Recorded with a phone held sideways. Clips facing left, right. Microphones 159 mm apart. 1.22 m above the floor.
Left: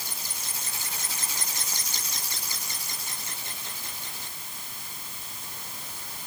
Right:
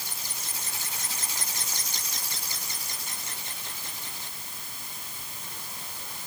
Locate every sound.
Only background noise.